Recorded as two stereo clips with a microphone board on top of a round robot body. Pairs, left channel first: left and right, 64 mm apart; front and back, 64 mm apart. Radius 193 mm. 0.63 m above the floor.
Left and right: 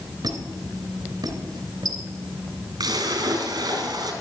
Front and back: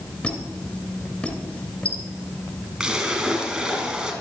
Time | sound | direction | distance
0.2 | a squeak | 75° right | 2.5 m
2.8 | a splash | 105° right | 3.5 m